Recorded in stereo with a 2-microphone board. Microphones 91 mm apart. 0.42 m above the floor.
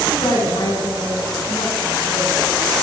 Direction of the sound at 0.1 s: 75° left (ahead or behind).